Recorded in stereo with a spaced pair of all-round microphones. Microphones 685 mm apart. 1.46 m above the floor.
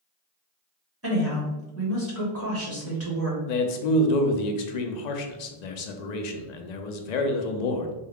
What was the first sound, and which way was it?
A woman speaking, 20° right (ahead or behind).